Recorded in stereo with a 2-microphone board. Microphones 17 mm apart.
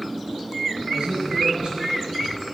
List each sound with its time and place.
0.9 s a man speaking: 55° right (ahead or behind), 5.5 m; by 2.4 s 60° right (ahead or behind), 7.5 m